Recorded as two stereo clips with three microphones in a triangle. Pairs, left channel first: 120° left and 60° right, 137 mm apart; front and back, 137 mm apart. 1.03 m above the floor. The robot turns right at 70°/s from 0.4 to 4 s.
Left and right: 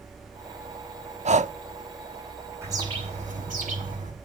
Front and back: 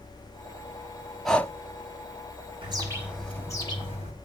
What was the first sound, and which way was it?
Breathing, 90° right.